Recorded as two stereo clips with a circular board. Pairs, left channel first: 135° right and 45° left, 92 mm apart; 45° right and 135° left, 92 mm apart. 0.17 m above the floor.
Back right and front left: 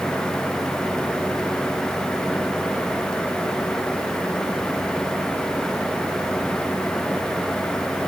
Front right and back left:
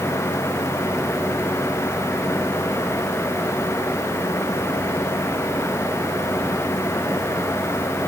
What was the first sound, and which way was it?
Only background noise.